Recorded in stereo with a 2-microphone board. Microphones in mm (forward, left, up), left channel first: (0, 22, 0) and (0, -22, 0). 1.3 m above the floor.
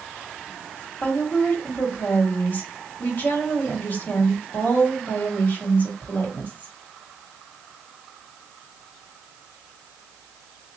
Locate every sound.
1.0 s a woman speaking: 55° left (ahead or behind), 3 m